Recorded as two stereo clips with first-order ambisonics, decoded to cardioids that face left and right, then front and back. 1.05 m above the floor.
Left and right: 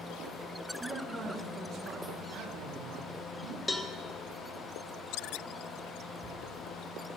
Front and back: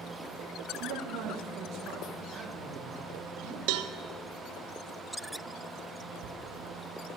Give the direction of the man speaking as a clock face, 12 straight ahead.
5 o'clock.